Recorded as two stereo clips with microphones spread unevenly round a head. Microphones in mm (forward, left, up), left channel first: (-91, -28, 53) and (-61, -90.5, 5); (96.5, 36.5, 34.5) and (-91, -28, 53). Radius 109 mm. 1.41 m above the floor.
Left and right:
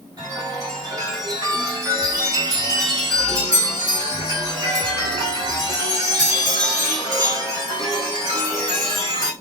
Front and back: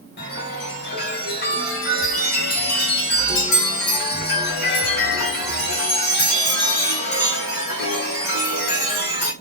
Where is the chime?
25° right, 1.4 m.